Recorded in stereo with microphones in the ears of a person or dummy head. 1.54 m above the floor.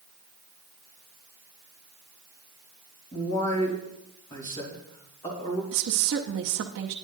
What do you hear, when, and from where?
3.1 s a man speaking: 25° left (ahead or behind), 3 m
5.7 s a woman speaking: 55° right (ahead or behind), 0.7 m